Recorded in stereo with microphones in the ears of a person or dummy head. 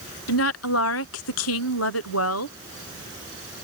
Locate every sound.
0.3 s a woman speaking: 90° left